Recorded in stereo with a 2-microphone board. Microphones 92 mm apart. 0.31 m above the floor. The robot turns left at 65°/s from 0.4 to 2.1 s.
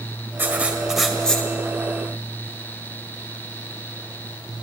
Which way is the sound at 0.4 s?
135° right.